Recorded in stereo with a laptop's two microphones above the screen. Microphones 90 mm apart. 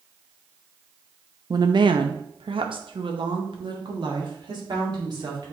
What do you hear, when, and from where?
1.5 s a woman speaking: 50° right (ahead or behind), 0.6 m